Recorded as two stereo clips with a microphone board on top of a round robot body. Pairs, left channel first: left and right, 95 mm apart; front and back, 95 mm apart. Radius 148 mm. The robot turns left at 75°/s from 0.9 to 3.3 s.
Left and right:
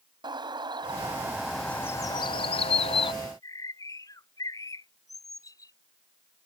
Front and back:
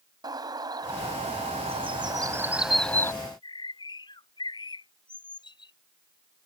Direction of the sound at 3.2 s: 45° left.